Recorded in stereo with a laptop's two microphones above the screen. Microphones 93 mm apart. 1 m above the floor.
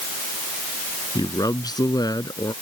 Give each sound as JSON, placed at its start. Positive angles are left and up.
{"t": 1.1, "sound": "a man speaking", "side_deg": 40}